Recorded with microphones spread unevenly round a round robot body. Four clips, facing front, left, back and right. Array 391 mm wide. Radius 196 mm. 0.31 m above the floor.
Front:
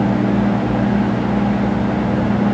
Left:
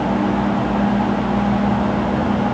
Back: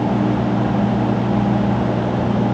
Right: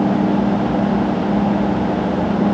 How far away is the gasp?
No gasp in this recording.